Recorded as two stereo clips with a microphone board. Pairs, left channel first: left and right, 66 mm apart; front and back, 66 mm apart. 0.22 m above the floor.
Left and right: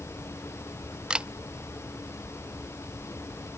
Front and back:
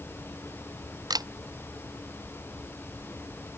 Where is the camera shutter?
165° right.